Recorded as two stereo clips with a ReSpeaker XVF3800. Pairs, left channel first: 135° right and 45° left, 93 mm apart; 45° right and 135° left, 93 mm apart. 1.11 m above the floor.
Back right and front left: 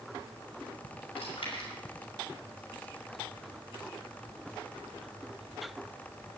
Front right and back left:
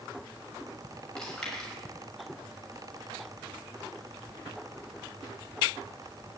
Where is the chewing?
125° right, 5.5 m.